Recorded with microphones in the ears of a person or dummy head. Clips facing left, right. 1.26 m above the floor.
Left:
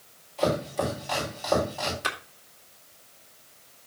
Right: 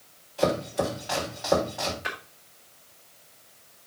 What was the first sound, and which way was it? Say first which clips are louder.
Chopping: right 1 dB; 5° right (ahead or behind).